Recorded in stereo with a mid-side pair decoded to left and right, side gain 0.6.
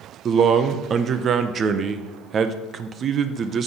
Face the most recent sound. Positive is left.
turn(degrees=-40)